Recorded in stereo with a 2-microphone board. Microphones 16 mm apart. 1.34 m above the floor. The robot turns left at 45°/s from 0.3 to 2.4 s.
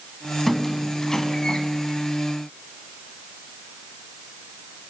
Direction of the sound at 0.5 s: 10° left (ahead or behind).